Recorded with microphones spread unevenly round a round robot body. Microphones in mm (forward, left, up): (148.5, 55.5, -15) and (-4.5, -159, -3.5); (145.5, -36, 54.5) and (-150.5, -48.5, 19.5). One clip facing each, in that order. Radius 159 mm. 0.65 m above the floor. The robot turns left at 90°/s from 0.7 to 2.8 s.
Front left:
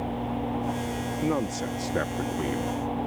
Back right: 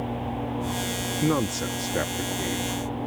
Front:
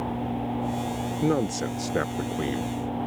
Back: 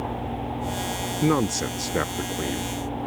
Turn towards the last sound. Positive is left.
turn(degrees=55)